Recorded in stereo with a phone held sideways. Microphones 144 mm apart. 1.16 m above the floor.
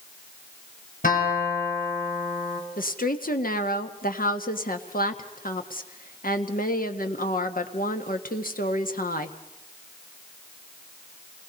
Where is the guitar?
70° left (ahead or behind), 5.5 m.